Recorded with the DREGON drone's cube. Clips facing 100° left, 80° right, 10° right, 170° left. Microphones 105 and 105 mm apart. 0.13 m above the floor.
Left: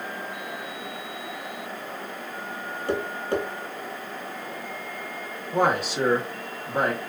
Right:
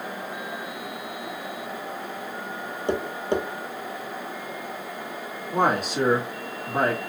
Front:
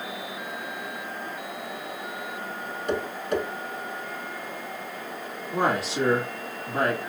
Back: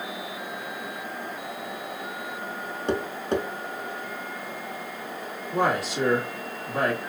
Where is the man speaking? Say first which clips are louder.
Even, back 1 dB; 65° right, 1.4 m.